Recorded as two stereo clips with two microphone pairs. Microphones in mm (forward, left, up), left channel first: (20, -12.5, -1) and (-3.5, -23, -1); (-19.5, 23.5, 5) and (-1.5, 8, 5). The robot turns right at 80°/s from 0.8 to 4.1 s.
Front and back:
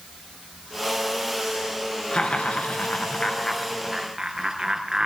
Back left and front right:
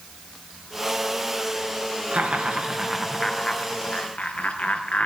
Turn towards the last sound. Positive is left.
turn(degrees=130)